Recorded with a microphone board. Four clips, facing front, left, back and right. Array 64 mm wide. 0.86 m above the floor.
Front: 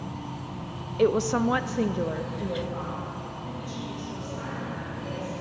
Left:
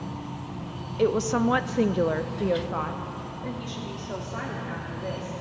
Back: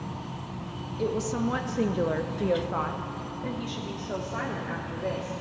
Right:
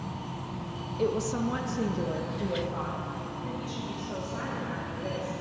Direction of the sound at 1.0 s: 30° left.